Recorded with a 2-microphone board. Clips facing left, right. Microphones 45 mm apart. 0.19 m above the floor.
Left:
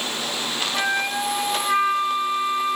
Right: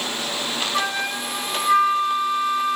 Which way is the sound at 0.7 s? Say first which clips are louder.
Left 3 dB; 35° left (ahead or behind).